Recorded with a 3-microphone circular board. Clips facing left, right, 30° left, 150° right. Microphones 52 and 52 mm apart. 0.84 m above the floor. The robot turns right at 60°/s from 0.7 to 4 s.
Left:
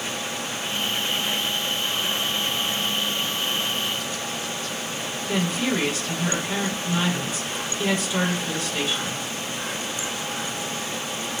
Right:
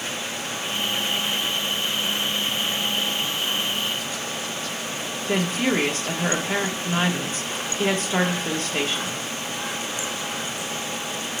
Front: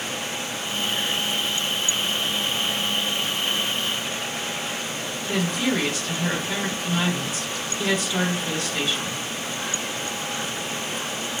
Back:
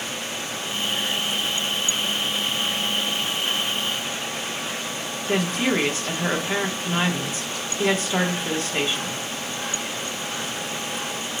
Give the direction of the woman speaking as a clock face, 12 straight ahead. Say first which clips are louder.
Right 2 dB, back 2 dB; 4 o'clock.